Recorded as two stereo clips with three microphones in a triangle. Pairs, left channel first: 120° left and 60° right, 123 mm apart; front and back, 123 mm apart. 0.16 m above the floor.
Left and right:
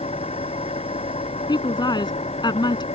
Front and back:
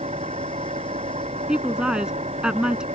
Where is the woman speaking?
100° left.